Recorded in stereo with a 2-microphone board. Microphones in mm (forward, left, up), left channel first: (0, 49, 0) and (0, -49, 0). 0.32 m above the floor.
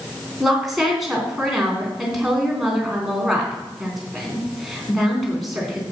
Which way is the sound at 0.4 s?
5° right (ahead or behind).